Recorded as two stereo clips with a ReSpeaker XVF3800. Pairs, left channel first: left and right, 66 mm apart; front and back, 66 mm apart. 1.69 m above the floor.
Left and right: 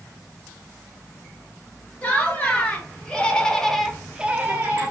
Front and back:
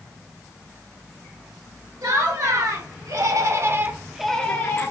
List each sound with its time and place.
2.0 s laughter: 160° left, 1.7 m; by 4.9 s 35° right, 0.7 m